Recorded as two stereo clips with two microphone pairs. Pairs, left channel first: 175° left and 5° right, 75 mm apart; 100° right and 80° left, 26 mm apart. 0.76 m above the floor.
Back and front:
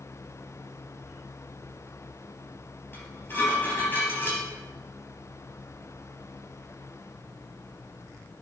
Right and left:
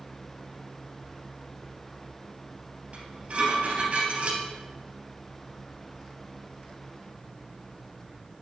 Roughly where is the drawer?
I don't hear a drawer.